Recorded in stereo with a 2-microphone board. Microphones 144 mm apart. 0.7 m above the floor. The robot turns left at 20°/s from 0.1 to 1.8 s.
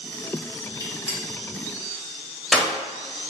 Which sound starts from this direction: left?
A gunshot, at 0.8 s.